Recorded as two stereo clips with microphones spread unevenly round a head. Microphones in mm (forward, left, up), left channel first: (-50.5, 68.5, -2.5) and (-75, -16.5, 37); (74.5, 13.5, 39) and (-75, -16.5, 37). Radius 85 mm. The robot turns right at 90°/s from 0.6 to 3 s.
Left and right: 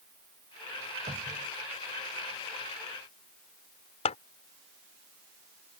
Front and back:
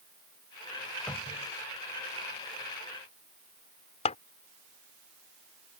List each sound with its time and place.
1.1 s a cupboard door: 70° right; by 1.5 s 30° right
4.0 s scissors: 65° left